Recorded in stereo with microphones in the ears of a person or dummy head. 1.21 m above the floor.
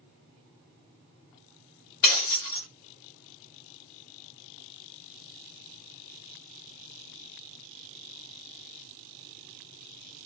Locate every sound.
2.0 s breaking glass: 20° left (ahead or behind), 1.0 m